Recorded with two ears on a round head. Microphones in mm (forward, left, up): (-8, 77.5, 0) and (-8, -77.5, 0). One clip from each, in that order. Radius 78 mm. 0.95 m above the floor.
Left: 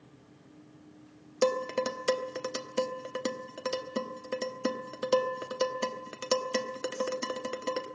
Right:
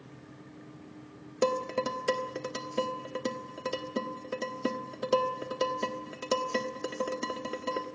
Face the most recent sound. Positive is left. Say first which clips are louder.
# left 1 dB
turn(degrees=30)  # may be behind; listen again after turning